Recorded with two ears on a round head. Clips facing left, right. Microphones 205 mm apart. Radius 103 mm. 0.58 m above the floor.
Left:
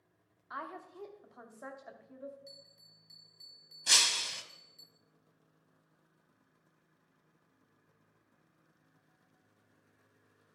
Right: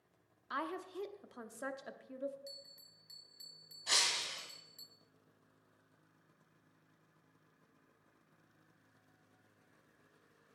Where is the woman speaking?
40° right (ahead or behind), 1.0 m.